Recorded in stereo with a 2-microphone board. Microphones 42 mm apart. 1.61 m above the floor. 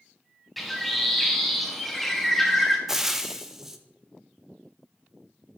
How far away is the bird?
About 1.5 m.